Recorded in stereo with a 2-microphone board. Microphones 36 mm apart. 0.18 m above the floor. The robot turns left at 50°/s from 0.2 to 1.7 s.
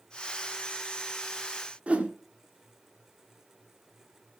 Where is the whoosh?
35° right (ahead or behind), 1.4 m.